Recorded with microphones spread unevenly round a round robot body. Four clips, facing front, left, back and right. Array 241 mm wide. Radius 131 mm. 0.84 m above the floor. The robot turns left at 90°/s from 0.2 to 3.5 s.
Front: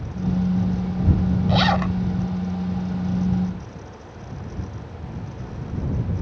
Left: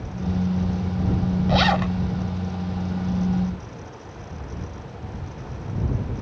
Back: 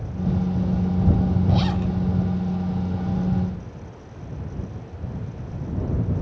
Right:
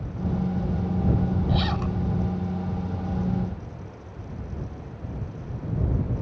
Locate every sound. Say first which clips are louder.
1.5 s a zipper: left 7 dB, front 4 dB; 60° left; by 2.0 s 20° left